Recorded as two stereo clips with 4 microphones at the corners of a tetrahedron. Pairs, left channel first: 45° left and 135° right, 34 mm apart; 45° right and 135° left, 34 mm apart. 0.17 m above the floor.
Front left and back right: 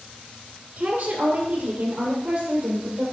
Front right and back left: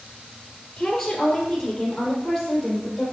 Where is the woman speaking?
125° right, 2.5 m; by 3.0 s 135° right, 5 m.